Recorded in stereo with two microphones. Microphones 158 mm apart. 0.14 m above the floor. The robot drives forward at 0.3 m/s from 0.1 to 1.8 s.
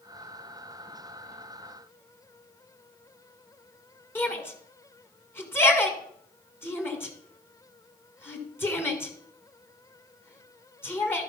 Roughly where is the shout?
Centre.